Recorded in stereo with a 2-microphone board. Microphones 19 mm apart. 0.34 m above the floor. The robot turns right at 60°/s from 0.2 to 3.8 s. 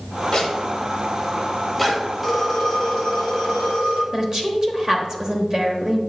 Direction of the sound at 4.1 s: 30° right (ahead or behind).